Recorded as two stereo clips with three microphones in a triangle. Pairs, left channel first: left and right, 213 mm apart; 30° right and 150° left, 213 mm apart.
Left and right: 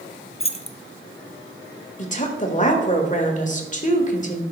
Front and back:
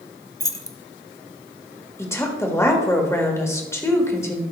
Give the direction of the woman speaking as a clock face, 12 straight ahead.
11 o'clock.